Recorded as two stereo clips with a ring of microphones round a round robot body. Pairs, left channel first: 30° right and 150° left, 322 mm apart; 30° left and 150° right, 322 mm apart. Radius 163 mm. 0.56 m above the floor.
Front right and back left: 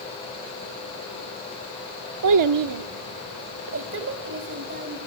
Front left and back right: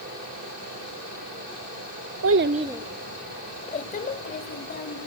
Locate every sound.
2.2 s a child speaking: 175° left, 0.8 m; by 5.1 s 90° left, 3.5 m